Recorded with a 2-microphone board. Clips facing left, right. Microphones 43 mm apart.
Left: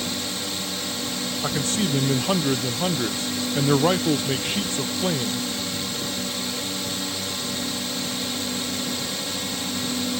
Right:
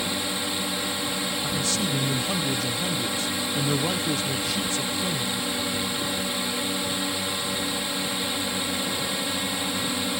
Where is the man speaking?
40° left (ahead or behind).